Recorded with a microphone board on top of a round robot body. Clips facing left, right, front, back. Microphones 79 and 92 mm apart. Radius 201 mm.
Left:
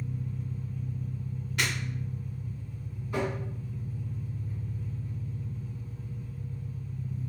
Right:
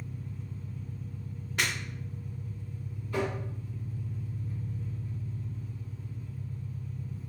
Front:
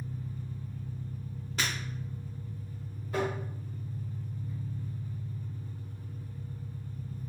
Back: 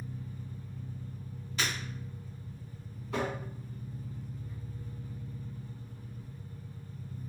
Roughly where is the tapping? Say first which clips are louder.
Even, front 2 dB; behind.